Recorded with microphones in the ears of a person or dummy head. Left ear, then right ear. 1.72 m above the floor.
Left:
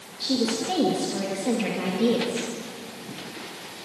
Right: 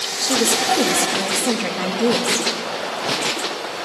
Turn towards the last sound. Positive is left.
turn(degrees=-45)  # may be behind; listen again after turning